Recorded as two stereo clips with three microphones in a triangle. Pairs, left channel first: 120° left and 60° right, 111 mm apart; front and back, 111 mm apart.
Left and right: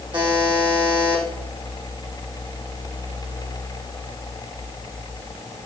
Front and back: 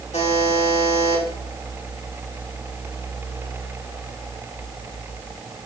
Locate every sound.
0.1 s a buzzer: 15° right, 4.5 m